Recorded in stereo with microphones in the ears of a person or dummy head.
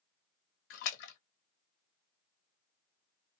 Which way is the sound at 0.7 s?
70° left (ahead or behind).